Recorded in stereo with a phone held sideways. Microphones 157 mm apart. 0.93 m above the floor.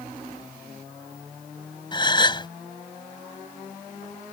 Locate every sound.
1.9 s a gasp: 30° left (ahead or behind)